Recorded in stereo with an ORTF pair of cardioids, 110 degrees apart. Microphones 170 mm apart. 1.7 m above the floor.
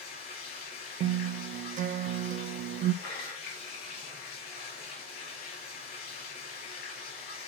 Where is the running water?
65° left, 5.5 m.